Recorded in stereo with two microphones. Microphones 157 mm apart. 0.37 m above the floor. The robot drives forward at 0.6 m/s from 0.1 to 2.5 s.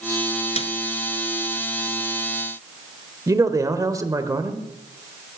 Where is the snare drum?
45° left (ahead or behind), 0.7 m; by 0.7 s 40° left (ahead or behind), 0.8 m.